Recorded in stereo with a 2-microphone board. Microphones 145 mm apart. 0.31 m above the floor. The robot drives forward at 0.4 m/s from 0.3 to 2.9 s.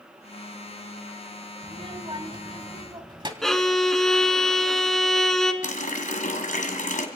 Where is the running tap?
65° left (ahead or behind), 1.5 m.